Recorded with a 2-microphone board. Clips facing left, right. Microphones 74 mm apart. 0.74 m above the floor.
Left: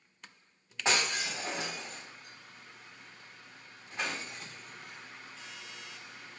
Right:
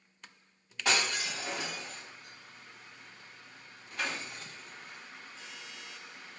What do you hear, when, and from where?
0.8 s breaking glass: 25° left (ahead or behind), 1.7 m